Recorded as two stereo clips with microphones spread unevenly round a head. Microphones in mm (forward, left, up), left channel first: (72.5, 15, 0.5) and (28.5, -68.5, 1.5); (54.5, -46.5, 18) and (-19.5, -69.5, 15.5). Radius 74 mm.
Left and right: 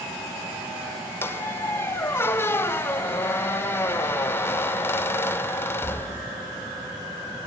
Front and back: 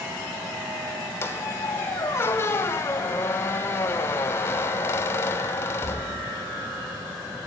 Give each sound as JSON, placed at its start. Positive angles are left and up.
{"t": 1.2, "sound": "a squeak", "azimuth_deg": 20, "distance_m": 1.2}